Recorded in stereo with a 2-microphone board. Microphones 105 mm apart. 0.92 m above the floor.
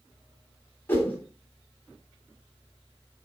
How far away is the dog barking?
I don't hear a dog barking.